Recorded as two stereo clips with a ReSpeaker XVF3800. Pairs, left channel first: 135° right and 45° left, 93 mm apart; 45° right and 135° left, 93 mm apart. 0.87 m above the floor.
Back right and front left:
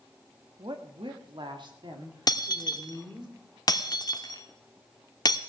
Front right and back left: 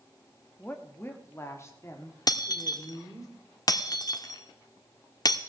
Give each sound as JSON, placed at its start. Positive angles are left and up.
{"t": 0.6, "sound": "a woman speaking", "azimuth_deg": 25, "distance_m": 1.3}
{"t": 2.3, "sound": "breaking glass", "azimuth_deg": -90, "distance_m": 0.9}